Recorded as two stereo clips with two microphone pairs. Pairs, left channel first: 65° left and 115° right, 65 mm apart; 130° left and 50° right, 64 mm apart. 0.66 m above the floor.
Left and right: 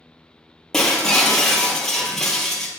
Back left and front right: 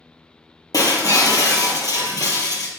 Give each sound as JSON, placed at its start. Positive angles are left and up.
{"t": 0.7, "sound": "breaking glass", "azimuth_deg": 145, "distance_m": 1.9}